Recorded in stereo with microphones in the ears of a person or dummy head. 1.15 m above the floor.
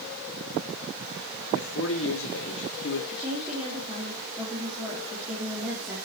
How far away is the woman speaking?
About 3 m.